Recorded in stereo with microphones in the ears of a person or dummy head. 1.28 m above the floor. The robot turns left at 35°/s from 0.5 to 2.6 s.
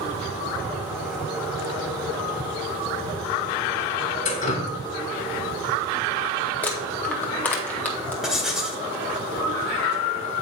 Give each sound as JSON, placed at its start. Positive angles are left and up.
{"t": 4.2, "sound": "dripping", "side_deg": 40, "distance_m": 1.5}
{"t": 6.6, "sound": "crumpling", "side_deg": 10, "distance_m": 0.8}
{"t": 8.2, "sound": "writing", "side_deg": 0, "distance_m": 1.8}